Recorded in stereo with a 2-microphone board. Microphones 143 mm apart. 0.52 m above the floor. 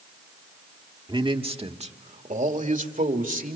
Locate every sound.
1.1 s a man speaking: 30° right (ahead or behind), 1.4 m; by 3.5 s 65° right (ahead or behind), 2.5 m